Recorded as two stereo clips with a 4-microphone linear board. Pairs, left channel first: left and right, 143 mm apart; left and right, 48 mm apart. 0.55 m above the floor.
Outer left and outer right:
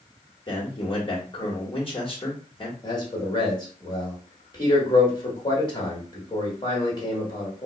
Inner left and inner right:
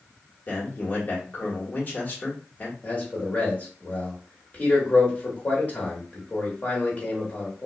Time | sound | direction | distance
0.5 | a man speaking | 40° left (ahead or behind) | 1.1 m
2.8 | a man speaking | 30° left (ahead or behind) | 1.3 m